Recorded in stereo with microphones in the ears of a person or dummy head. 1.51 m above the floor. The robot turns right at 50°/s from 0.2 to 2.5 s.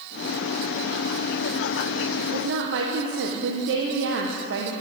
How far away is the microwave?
I don't hear a microwave.